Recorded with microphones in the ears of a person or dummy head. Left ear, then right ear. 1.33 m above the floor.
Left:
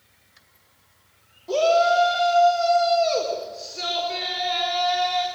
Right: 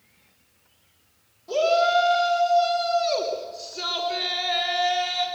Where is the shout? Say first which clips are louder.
Left 2 dB; 15° left (ahead or behind), 3.5 m; by 5.3 s 15° right (ahead or behind), 6 m.